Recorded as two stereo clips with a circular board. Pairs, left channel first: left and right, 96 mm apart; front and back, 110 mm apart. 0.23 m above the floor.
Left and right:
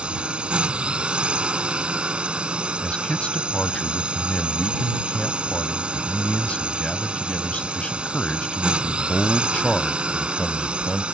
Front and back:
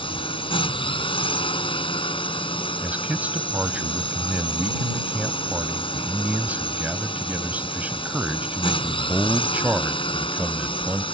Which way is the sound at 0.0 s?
15° right.